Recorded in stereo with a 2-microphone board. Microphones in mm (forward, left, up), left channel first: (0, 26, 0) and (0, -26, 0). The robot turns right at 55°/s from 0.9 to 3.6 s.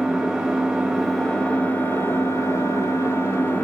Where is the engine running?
15° right, 3 m; by 3.6 s 135° left, 3 m.